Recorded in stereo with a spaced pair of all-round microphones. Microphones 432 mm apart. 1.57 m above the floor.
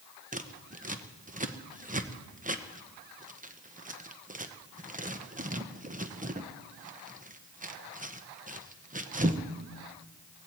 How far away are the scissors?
About 0.8 m.